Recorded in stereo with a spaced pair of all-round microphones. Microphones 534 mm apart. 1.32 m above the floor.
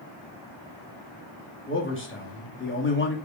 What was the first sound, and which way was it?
A man speaking, 20° left (ahead or behind).